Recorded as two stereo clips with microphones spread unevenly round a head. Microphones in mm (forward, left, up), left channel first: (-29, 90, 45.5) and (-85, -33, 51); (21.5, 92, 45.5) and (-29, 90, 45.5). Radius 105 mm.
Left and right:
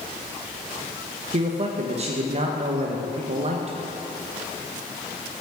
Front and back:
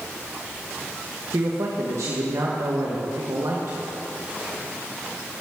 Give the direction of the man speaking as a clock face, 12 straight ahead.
5 o'clock.